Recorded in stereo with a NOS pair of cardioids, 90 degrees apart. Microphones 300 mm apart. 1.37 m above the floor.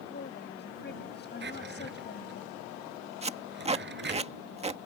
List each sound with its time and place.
0.1 s a woman speaking: 35° left
1.4 s a drawer: 35° right
3.2 s tape being pulled: 20° right